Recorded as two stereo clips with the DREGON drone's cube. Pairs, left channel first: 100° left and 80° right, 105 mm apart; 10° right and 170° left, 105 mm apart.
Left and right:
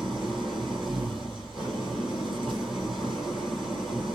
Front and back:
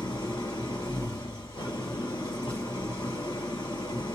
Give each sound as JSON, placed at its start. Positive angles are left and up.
{"t": 0.0, "sound": "an engine running", "azimuth_deg": 10, "distance_m": 2.0}